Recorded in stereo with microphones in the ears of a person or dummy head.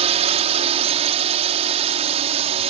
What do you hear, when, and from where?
0.0 s a drone: 40° right (ahead or behind)